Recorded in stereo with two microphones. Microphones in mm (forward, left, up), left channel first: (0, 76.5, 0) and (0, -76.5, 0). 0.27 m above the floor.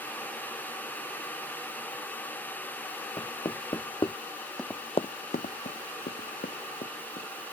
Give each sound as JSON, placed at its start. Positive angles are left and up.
{"t": 3.2, "sound": "knocking", "side_deg": 30}
{"t": 4.6, "sound": "running footsteps", "side_deg": 5}